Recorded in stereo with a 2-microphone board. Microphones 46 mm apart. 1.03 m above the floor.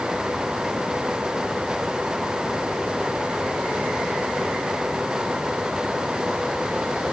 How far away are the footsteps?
No footsteps in this recording.